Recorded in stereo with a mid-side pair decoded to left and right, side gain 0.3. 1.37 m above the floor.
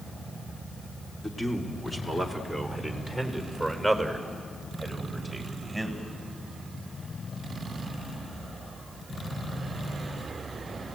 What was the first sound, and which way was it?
A man speaking, 30° left.